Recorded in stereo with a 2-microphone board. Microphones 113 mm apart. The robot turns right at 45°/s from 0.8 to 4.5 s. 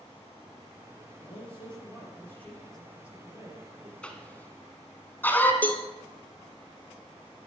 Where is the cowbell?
15° left (ahead or behind), 0.9 m.